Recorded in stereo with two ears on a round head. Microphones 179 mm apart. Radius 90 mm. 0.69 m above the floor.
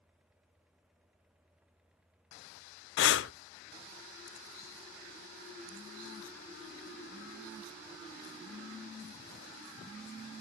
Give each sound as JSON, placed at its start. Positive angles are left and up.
{"t": 3.0, "sound": "breathing", "side_deg": 60, "distance_m": 0.5}